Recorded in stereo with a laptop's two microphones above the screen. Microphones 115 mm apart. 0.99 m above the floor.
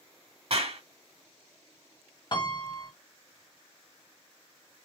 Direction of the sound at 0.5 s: 60° right (ahead or behind).